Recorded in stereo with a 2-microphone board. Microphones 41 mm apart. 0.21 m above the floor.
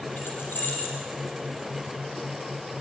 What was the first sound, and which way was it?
Keys jangling, 55° left (ahead or behind).